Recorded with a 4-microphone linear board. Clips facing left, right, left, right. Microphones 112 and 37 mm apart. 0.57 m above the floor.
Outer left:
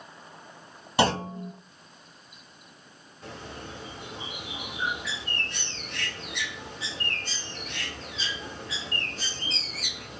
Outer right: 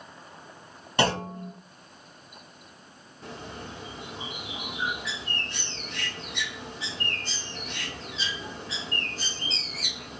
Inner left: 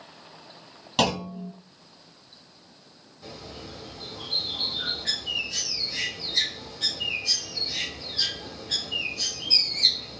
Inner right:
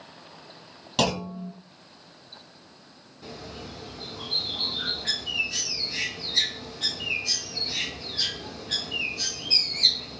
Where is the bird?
30° right (ahead or behind), 3 m.